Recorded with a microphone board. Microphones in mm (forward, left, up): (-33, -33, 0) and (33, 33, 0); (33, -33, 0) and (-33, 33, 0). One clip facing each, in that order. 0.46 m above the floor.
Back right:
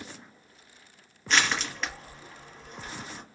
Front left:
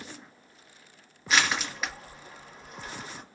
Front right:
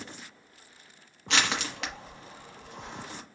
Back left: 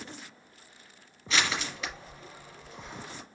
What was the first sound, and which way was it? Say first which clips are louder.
Crushing: even, front right 1 dB; 40° right.